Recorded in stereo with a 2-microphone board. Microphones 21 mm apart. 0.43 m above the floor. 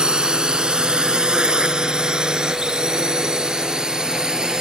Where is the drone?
40° right (ahead or behind); by 4.6 s 35° right (ahead or behind).